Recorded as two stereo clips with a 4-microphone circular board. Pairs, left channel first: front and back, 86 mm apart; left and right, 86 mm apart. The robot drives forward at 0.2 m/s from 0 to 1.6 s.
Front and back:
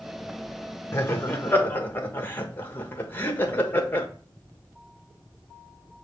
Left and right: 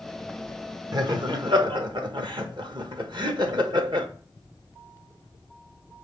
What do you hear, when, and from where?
0.9 s laughter: 60° right, 1.4 m; by 4.1 s 65° right, 1.3 m